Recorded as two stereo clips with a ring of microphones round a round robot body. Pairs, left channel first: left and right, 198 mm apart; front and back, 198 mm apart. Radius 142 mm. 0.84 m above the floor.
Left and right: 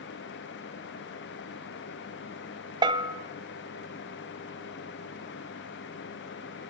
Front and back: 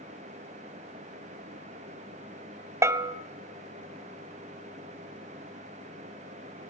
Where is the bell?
125° right, 0.8 m.